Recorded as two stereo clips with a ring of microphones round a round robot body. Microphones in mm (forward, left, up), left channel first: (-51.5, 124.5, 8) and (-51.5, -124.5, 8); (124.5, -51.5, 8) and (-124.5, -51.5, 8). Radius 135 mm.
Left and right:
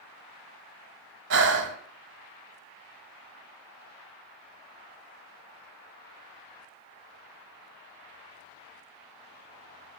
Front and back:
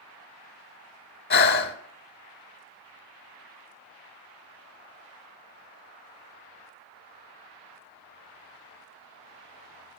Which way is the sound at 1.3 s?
45° right.